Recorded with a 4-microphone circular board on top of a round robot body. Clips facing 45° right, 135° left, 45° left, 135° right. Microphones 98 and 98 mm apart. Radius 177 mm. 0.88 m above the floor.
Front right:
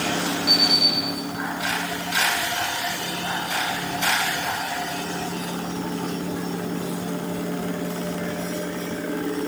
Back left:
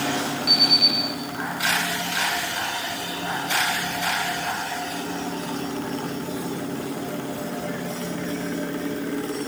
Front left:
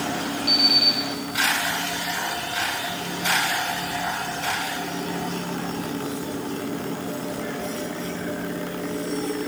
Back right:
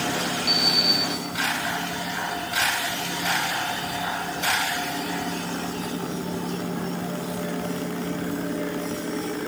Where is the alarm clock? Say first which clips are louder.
Front right 1 dB, even; 95° left, 5 m.